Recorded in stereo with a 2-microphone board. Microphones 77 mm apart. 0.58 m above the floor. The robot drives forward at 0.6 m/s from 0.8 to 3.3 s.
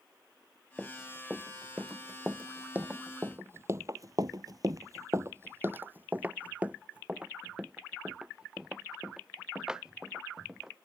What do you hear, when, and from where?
0.8 s running footsteps: 15° right (ahead or behind); by 10.8 s 10° right (ahead or behind)